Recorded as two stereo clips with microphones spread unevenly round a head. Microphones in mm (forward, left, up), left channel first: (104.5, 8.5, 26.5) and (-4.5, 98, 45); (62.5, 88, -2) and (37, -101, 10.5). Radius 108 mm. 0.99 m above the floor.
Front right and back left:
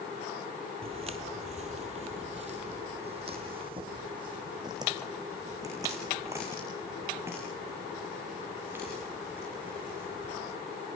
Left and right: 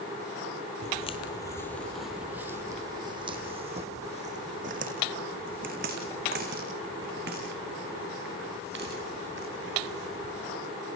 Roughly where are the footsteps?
Behind left.